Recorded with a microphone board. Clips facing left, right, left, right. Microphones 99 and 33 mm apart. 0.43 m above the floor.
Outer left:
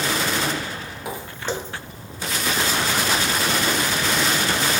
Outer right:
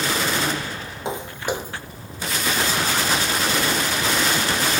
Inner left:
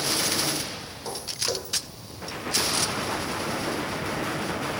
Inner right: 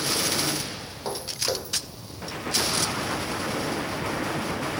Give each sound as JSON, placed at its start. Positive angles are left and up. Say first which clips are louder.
{"t": 1.1, "sound": "footsteps", "louder": "outer right 3 dB, inner right 2 dB", "side_deg": -25, "distance_m": 1.1}